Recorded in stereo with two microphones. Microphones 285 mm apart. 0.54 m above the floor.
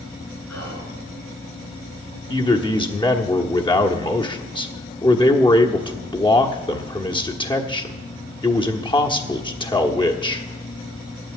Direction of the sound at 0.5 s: 70° left (ahead or behind).